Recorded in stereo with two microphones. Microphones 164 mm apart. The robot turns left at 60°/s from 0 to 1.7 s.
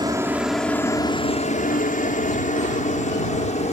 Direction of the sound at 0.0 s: 25° right (ahead or behind).